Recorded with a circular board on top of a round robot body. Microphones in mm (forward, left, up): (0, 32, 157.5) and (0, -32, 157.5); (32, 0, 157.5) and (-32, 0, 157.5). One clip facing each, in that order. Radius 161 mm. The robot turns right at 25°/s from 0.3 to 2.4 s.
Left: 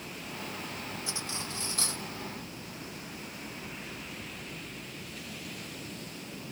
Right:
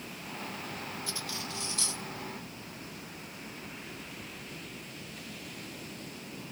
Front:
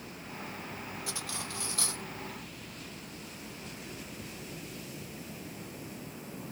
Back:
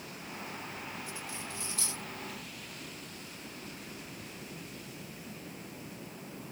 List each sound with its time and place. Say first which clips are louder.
1.1 s cutlery clinking: left 1 dB, front 2 dB; 20° left; by 2.0 s 45° left